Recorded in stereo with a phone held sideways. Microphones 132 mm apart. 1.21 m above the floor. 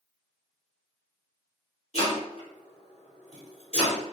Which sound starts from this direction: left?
Chopping, at 1.9 s.